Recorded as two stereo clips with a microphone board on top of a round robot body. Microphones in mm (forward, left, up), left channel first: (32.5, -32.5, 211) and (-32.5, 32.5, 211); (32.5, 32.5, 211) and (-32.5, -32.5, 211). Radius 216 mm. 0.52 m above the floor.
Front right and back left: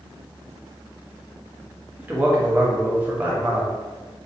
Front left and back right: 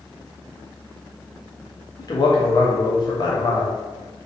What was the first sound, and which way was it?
A man speaking, 70° left.